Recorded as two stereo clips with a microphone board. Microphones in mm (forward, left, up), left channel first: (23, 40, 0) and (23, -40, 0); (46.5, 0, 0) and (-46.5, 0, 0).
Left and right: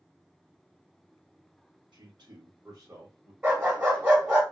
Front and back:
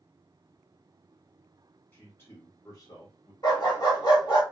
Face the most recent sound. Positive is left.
turn(degrees=-30)